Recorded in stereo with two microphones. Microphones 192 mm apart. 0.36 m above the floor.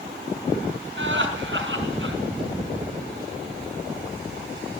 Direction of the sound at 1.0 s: 70° right (ahead or behind).